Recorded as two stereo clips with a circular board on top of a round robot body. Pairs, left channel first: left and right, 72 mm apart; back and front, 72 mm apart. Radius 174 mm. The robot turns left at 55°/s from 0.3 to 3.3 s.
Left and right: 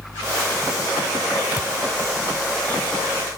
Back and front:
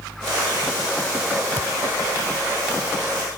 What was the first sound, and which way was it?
A thud, 120° left.